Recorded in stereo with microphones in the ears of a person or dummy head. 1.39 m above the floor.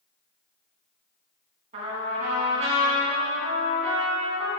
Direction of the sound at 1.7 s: 25° right (ahead or behind).